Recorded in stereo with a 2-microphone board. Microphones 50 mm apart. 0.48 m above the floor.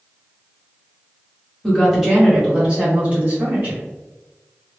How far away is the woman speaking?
About 1.4 m.